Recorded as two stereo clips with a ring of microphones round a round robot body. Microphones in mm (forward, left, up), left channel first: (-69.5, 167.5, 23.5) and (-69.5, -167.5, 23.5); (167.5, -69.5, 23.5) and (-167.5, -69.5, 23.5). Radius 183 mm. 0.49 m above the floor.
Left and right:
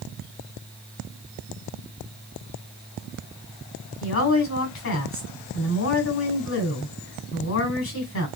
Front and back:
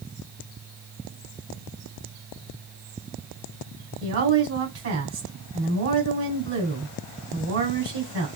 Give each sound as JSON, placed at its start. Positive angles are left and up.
{"t": 4.0, "sound": "a woman speaking", "azimuth_deg": 135, "distance_m": 2.5}